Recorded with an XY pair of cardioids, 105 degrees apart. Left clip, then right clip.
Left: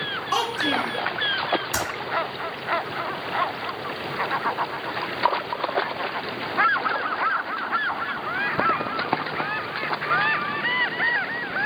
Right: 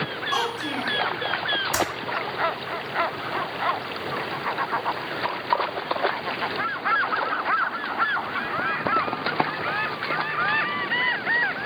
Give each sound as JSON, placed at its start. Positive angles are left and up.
{"t": 0.3, "sound": "a child speaking", "azimuth_deg": 30, "distance_m": 0.7}
{"t": 1.7, "sound": "typing on a keyboard", "azimuth_deg": -5, "distance_m": 1.4}